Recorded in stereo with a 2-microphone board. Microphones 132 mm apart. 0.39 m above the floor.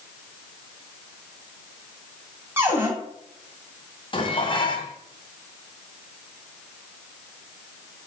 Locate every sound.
2.6 s a cupboard door: 15° right (ahead or behind), 3 m
4.1 s dishes clattering: 40° left (ahead or behind), 1.8 m